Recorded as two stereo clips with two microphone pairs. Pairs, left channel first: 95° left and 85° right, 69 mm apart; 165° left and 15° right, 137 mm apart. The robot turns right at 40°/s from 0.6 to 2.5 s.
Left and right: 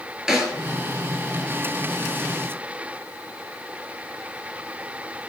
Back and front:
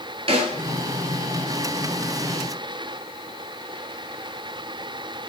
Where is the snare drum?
5° right, 0.6 m.